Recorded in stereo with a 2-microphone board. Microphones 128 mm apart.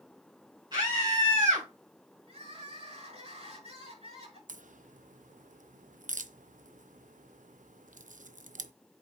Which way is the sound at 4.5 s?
85° right.